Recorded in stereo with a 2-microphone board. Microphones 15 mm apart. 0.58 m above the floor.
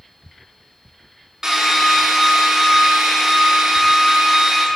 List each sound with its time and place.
1.4 s a drill: 45° right (ahead or behind), 1.4 m